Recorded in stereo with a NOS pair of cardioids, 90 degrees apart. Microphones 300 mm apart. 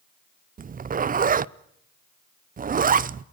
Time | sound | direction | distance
0.6 | a zipper | 30° right | 0.6 m